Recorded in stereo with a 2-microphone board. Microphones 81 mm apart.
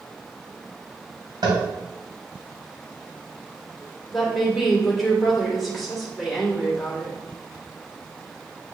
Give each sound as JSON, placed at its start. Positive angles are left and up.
{"t": 1.4, "sound": "tapping", "side_deg": -65, "distance_m": 2.5}
{"t": 4.1, "sound": "a woman speaking", "side_deg": 0, "distance_m": 2.0}